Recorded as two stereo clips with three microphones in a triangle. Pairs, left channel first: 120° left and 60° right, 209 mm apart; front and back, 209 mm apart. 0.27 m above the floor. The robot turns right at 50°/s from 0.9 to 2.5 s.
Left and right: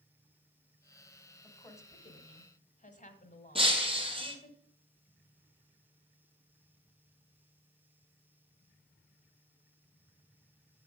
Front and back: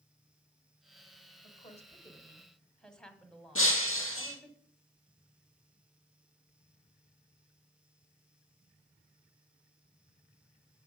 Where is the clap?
No clap in this recording.